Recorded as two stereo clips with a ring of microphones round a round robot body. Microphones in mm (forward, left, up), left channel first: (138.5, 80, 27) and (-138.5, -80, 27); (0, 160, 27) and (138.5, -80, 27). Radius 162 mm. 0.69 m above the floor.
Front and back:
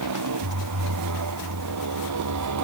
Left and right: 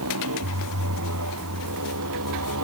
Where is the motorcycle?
110° right.